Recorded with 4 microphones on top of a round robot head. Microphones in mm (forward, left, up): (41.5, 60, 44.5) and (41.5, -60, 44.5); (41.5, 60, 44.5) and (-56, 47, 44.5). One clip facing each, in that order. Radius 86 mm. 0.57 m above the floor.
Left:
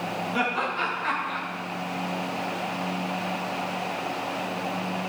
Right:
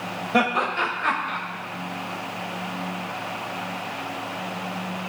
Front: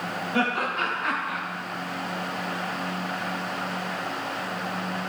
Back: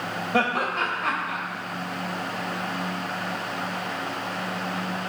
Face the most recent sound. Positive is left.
turn(degrees=-120)